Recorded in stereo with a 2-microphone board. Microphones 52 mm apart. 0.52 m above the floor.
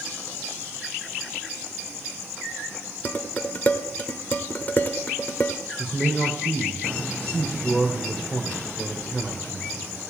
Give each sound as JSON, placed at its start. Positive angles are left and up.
{"t": 3.0, "sound": "dishes clattering", "side_deg": 35, "distance_m": 1.0}
{"t": 5.8, "sound": "a man speaking", "side_deg": 30, "distance_m": 2.0}